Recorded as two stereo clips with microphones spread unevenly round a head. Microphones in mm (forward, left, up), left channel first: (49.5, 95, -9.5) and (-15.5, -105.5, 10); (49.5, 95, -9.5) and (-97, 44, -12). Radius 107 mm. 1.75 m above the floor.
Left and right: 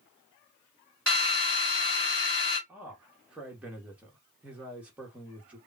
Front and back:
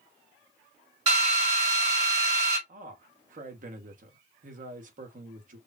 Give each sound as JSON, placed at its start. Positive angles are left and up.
{"t": 1.1, "sound": "a drill", "azimuth_deg": 160, "distance_m": 3.0}
{"t": 2.7, "sound": "a man speaking", "azimuth_deg": 170, "distance_m": 1.8}